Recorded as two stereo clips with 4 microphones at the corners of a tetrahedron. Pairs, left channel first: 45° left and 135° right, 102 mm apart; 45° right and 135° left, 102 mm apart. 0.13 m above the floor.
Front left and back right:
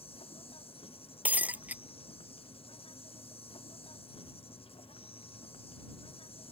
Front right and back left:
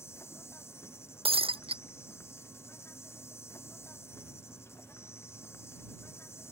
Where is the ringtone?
No ringtone in this recording.